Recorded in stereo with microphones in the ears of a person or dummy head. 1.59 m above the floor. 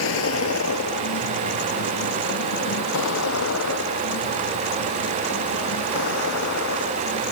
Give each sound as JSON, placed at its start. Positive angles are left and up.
{"t": 0.0, "sound": "a vehicle", "side_deg": 70}